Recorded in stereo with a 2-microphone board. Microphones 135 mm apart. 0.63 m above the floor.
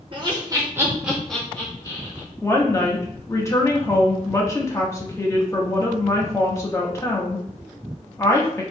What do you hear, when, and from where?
0.1 s laughter: 35° right (ahead or behind), 1.4 m; by 2.3 s 35° left (ahead or behind), 1.3 m
2.4 s a woman speaking: 20° left (ahead or behind), 0.9 m